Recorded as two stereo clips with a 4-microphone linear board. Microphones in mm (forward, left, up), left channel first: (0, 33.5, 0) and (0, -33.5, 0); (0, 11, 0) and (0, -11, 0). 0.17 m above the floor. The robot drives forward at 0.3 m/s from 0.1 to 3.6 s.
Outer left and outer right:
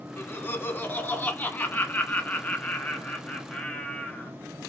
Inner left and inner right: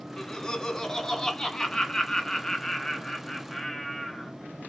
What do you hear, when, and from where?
0.2 s laughter: 35° left (ahead or behind), 1.2 m; by 4.3 s 20° left (ahead or behind), 1.7 m